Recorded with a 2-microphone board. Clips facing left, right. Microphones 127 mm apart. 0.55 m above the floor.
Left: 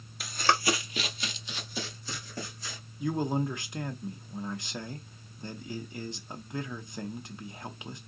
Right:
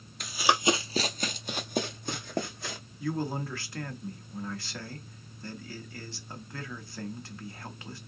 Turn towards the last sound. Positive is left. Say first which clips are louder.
# left 3 dB
turn(degrees=20)  # may be behind; listen again after turning